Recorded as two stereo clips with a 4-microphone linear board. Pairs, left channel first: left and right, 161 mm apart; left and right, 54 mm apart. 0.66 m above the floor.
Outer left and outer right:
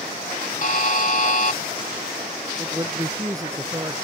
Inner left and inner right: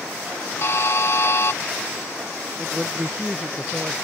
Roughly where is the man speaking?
Right.